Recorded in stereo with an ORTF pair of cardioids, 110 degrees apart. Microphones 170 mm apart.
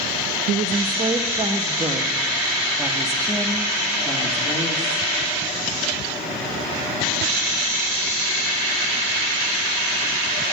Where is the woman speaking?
45° right, 1.2 m; by 5.1 s 15° left, 3 m.